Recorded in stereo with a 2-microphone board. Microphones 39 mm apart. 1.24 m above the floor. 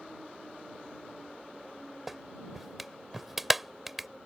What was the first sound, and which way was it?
A clap, 5° right (ahead or behind).